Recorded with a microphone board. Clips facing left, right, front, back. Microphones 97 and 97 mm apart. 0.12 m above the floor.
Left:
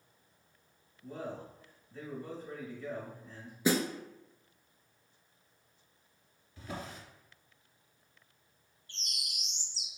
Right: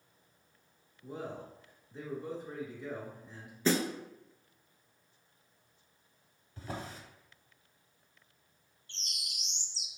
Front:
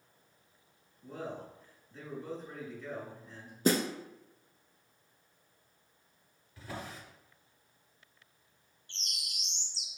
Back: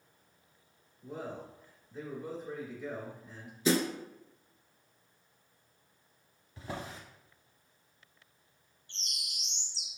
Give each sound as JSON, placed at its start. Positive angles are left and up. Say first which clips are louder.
{"t": 1.0, "sound": "a man speaking", "louder": "even, even", "azimuth_deg": -115, "distance_m": 1.1}
{"t": 3.6, "sound": "a snare drum", "louder": "even, even", "azimuth_deg": 15, "distance_m": 0.6}
{"t": 6.6, "sound": "a drawer", "louder": "right 1 dB, back 2 dB", "azimuth_deg": -120, "distance_m": 1.1}
{"t": 8.9, "sound": "a bird", "louder": "left 1 dB, even", "azimuth_deg": -120, "distance_m": 1.4}